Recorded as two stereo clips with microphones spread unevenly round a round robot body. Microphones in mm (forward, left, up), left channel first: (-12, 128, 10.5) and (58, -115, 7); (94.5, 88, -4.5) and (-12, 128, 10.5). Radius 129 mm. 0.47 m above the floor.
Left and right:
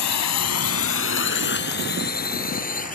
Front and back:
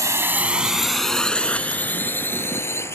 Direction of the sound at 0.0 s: 100° left.